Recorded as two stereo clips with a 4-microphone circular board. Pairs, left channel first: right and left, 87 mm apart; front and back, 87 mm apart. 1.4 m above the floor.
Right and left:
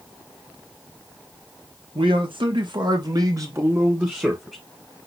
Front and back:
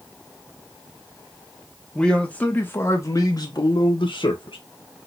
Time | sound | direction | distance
1.9 | a man speaking | 80° left | 1.4 m